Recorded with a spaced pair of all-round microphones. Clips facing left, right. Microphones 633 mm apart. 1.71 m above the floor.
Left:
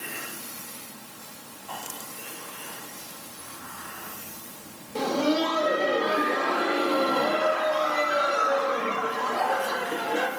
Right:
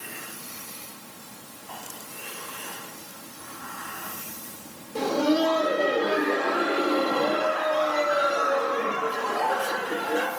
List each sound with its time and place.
5.0 s laughter: 30° left (ahead or behind), 1.7 m